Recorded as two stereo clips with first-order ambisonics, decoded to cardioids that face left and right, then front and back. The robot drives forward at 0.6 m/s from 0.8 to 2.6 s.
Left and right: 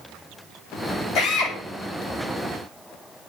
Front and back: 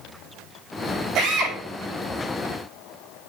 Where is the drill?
125° left, 8 m.